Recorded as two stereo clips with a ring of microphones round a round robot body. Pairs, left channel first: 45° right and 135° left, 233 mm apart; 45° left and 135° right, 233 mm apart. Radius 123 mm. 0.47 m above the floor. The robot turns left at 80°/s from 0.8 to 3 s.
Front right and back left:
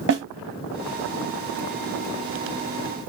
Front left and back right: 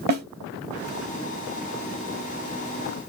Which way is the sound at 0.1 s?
175° left.